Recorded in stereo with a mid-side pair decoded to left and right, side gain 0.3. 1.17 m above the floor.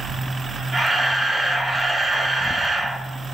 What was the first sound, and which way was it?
A camera shutter, 45° right.